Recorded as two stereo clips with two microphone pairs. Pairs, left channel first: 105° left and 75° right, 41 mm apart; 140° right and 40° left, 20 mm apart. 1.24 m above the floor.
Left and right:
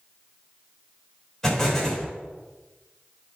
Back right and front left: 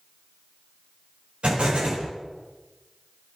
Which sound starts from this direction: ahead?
An explosion, at 1.4 s.